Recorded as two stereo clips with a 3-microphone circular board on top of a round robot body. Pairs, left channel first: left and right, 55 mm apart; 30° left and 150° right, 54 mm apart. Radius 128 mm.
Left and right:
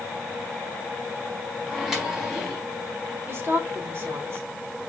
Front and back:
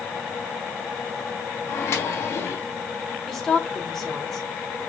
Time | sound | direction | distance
1.7 | a microwave | 10° right | 3.5 m
3.3 | a woman speaking | 55° right | 3 m